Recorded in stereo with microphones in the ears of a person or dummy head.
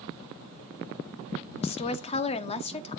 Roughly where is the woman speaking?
Left.